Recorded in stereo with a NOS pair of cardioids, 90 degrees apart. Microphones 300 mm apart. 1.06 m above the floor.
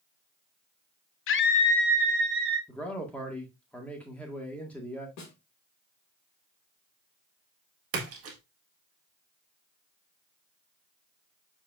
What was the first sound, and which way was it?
A scream, 50° left.